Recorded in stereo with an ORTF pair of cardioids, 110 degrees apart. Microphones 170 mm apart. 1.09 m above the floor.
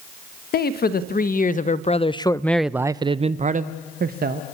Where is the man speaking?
70° left, 1.2 m; by 4.4 s 65° right, 1.1 m.